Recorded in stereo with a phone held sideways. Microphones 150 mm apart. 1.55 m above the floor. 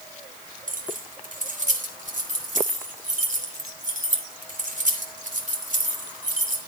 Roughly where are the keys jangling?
Right.